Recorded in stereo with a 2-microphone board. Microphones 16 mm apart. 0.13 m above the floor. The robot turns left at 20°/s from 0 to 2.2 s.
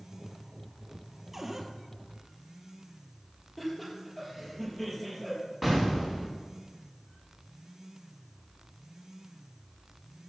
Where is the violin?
No violin in this recording.